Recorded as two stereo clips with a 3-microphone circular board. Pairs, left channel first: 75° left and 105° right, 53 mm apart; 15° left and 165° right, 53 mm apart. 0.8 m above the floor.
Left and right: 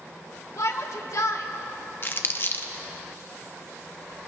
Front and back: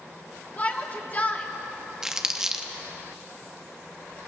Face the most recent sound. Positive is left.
turn(degrees=120)